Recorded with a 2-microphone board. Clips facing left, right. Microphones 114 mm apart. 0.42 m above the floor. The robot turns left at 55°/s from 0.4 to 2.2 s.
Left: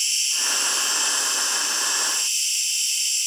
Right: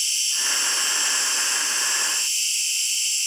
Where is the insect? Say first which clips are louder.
Left 1 dB; 15° right, 3.5 m; by 3.3 s 115° right, 3.5 m.